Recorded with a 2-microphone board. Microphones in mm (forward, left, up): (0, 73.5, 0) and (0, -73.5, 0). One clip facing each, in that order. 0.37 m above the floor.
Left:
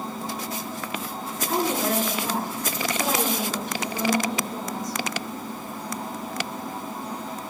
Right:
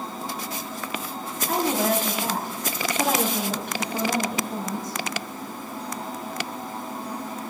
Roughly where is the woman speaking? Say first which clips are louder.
Right 1 dB; right.